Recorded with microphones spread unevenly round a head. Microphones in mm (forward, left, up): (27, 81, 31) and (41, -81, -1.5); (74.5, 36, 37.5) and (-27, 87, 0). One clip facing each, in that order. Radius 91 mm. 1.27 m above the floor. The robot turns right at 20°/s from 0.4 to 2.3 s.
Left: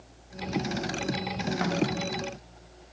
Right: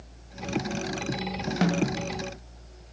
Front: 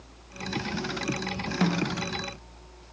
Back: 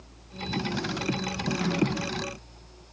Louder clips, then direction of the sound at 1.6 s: Right 3 dB, even; 75° right.